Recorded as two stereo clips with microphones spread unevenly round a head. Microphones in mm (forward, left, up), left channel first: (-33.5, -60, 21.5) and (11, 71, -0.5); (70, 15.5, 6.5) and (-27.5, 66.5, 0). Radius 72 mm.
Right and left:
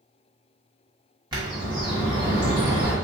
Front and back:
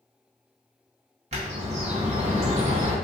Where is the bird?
135° left, 1.3 m.